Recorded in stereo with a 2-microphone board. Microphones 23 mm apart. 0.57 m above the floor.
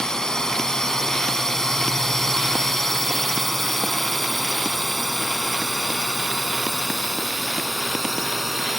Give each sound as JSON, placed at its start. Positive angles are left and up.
{"t": 0.0, "sound": "a drone", "side_deg": 30}